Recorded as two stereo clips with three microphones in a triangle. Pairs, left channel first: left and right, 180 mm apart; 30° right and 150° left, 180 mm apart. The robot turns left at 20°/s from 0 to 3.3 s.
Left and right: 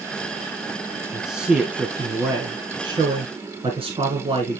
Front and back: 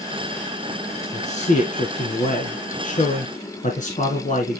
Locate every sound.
1.1 s a man speaking: straight ahead, 1.6 m; by 4.6 s 45° right, 1.6 m